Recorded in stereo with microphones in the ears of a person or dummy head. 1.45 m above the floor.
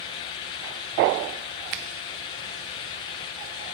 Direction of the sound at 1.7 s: 40° right (ahead or behind).